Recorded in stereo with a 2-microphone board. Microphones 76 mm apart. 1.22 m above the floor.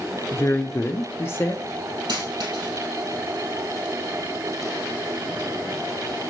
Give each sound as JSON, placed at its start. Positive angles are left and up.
{"t": 0.3, "sound": "a woman speaking", "side_deg": 30, "distance_m": 0.5}
{"t": 2.1, "sound": "a dropped coin", "side_deg": -65, "distance_m": 3.0}